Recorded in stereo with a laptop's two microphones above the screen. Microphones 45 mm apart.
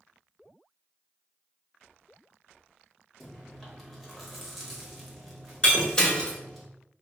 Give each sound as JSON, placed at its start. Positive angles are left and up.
{"t": 3.2, "sound": "chewing", "side_deg": 5, "distance_m": 1.1}
{"t": 5.6, "sound": "breaking glass", "side_deg": 20, "distance_m": 1.1}